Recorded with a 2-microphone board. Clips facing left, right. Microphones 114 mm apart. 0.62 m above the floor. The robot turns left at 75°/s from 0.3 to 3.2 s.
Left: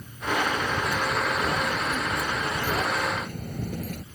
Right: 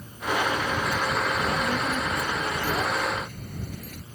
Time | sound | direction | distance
1.4 | a child speaking | 100° right | ?